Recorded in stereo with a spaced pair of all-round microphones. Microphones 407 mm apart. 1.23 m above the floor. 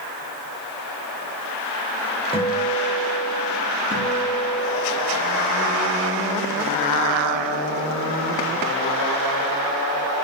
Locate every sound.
2.3 s a guitar: 15° left (ahead or behind), 6 m
3.9 s a guitar: 20° right (ahead or behind), 8 m